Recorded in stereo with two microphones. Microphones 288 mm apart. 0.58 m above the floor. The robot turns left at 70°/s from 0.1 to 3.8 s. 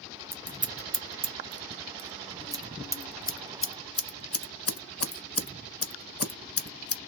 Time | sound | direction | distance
0.3 | scissors | 10° right (ahead or behind) | 0.5 m